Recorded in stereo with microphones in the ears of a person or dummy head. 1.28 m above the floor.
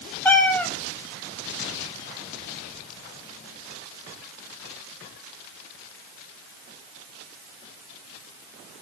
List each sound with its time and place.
0.2 s a cat meowing: 10° left (ahead or behind), 0.9 m